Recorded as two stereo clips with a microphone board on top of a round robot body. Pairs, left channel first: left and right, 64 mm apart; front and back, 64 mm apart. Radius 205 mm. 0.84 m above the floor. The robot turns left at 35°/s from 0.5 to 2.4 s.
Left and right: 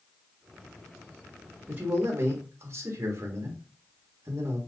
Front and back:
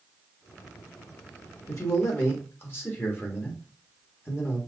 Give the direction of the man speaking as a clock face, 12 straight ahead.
1 o'clock.